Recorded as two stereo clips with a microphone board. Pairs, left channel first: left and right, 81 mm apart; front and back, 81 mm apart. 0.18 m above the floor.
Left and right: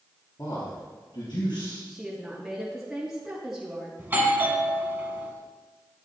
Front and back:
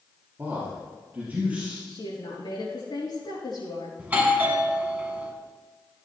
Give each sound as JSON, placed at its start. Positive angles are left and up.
{"t": 0.4, "sound": "a man speaking", "azimuth_deg": 120, "distance_m": 3.0}
{"t": 1.9, "sound": "a woman speaking", "azimuth_deg": -5, "distance_m": 4.0}
{"t": 4.0, "sound": "a doorbell", "azimuth_deg": -125, "distance_m": 1.8}